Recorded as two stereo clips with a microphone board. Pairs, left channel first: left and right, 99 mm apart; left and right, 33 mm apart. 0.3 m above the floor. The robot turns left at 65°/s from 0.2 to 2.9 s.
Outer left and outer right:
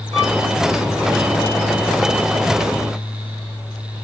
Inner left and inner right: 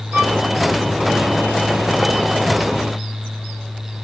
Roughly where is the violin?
Right.